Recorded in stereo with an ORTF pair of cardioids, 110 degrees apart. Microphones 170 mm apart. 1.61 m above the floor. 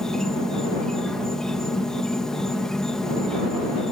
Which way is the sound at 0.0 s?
5° left.